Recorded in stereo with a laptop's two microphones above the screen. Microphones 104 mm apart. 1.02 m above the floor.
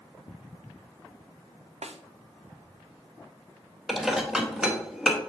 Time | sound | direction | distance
1.8 | a snare drum | 85° right | 0.6 m
3.9 | dishes clattering | 5° right (ahead or behind) | 0.7 m